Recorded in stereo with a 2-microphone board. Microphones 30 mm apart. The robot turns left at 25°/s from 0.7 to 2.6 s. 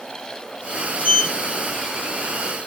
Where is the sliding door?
45° left (ahead or behind), 1.4 m.